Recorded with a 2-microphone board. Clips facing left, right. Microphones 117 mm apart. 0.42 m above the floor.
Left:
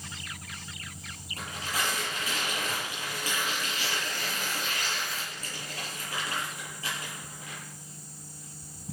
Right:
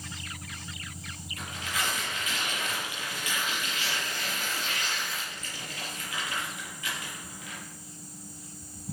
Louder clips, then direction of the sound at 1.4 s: Left 1 dB; 35° left (ahead or behind).